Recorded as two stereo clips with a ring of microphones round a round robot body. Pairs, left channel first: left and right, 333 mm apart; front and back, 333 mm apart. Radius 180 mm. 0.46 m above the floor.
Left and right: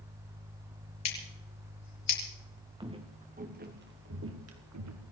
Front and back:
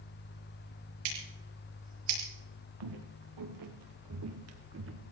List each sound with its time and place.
1.1 s scissors: 130° left, 6.5 m
2.8 s footsteps: 165° right, 3.5 m; by 5.0 s 125° right, 3.5 m